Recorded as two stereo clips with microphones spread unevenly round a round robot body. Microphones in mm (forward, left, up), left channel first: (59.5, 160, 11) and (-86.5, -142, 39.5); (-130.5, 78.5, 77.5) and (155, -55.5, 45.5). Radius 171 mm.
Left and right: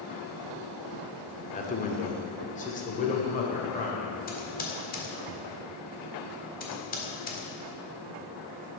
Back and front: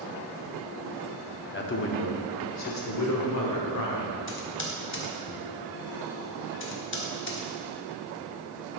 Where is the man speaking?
110° left, 1.1 m; by 4.2 s 130° left, 2.5 m.